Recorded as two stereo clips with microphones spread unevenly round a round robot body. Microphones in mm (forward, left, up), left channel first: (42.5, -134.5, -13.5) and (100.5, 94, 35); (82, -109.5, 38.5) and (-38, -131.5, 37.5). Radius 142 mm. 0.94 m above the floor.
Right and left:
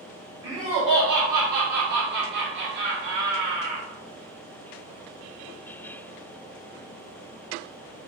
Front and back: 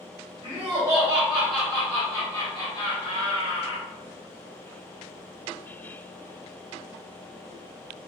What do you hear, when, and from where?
0.4 s laughter: 155° left, 1.2 m; by 3.9 s 25° left, 1.7 m